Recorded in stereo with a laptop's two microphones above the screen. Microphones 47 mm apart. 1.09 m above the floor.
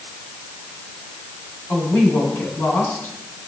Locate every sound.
1.7 s a woman speaking: 40° left (ahead or behind), 8.5 m